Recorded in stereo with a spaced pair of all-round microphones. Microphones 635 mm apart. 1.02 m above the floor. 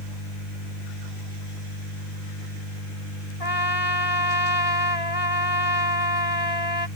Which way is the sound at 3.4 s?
70° left (ahead or behind).